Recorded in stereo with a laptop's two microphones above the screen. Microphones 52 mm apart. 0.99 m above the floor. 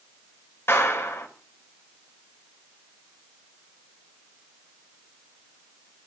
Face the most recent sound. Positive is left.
turn(degrees=55)  # may be behind; listen again after turning